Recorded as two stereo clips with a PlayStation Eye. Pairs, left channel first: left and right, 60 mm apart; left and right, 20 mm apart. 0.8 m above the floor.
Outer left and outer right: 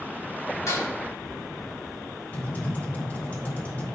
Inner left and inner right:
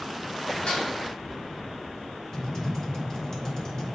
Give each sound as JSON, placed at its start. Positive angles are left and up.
{"t": 0.7, "sound": "dishes clattering", "side_deg": 60, "distance_m": 2.5}
{"t": 2.3, "sound": "typing on a keyboard", "side_deg": 30, "distance_m": 2.0}